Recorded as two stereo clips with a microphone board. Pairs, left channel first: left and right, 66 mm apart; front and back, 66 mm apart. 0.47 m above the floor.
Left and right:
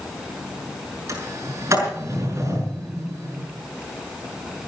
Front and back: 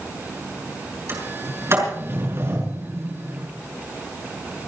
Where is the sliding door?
135° right, 6.5 m.